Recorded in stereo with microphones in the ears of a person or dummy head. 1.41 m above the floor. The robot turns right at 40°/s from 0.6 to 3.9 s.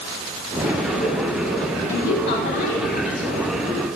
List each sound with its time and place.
1.9 s a woman speaking: 95° left, 5 m; by 3.3 s 150° left, 5 m